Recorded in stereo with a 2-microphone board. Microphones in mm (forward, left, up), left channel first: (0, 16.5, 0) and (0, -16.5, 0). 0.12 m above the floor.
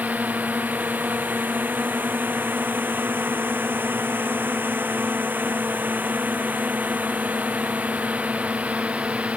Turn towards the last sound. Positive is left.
turn(degrees=-35)  # may be behind; listen again after turning